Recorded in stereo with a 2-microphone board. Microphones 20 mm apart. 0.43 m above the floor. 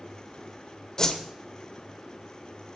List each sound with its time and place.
1.0 s a whoosh: 35° left (ahead or behind), 1.2 m